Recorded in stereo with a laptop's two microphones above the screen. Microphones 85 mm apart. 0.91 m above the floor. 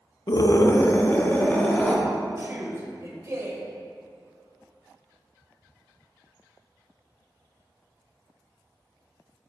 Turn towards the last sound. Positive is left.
turn(degrees=-35)  # may be behind; listen again after turning